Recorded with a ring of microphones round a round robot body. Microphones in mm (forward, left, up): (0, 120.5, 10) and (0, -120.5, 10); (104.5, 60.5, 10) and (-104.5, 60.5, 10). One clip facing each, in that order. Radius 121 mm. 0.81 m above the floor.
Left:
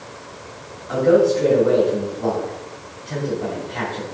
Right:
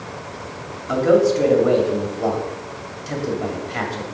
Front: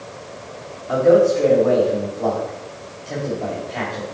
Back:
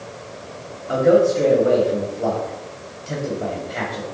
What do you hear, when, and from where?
0.9 s a man speaking: 100° right, 2 m